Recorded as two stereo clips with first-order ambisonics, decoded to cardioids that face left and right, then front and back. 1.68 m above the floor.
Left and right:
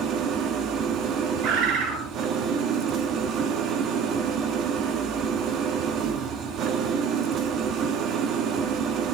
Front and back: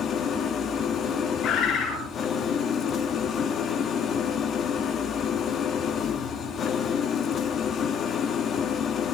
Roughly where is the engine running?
Ahead right.